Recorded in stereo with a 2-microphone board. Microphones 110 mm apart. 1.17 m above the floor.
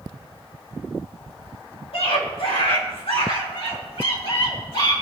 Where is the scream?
65° left (ahead or behind), 2.5 m.